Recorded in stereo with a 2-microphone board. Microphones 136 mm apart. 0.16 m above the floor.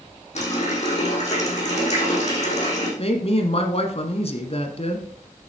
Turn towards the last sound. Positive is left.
turn(degrees=50)  # may be behind; listen again after turning